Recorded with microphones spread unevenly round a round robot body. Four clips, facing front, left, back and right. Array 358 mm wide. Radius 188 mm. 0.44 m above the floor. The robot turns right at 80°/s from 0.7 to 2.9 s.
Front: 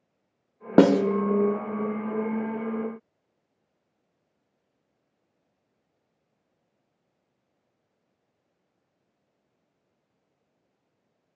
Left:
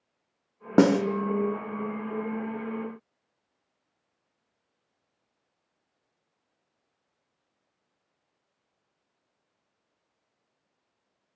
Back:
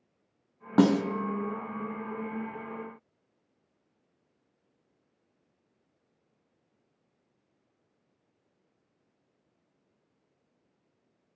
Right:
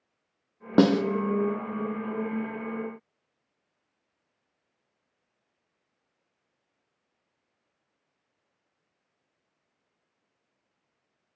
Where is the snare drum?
5° left, 0.8 m; by 1.0 s 25° left, 0.8 m.